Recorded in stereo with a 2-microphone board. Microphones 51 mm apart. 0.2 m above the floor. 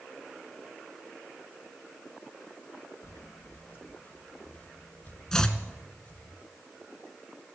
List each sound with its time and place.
3.0 s footsteps: 55° left (ahead or behind), 0.9 m; by 6.3 s 20° left (ahead or behind), 3.5 m
5.3 s chopping: 10° left (ahead or behind), 1.0 m